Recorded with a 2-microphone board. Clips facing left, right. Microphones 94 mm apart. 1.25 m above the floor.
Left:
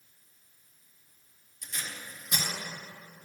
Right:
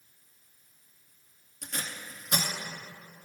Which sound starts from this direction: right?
Tape being pulled, at 1.6 s.